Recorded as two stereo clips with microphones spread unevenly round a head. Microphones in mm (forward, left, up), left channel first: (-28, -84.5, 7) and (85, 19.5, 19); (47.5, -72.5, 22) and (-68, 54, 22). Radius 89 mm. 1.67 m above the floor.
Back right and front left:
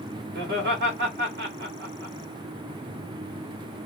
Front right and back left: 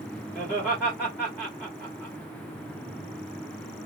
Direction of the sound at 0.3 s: 35° left.